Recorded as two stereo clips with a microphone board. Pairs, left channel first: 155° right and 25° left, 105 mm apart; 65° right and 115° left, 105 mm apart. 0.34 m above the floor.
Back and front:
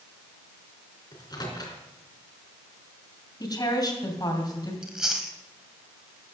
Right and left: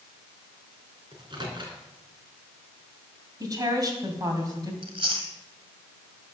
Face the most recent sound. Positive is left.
turn(degrees=105)